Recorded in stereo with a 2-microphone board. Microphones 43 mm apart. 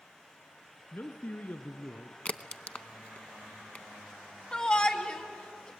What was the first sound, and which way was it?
A man speaking, 45° left (ahead or behind).